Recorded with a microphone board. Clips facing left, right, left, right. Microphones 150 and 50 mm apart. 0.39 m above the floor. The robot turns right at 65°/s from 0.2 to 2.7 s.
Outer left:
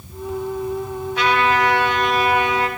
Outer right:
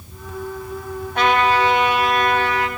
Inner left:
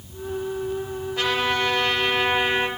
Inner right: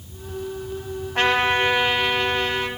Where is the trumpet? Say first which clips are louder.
Outer right 2 dB, inner right 4 dB; 65° right, 2.5 m; by 2.7 s 35° left, 2.5 m.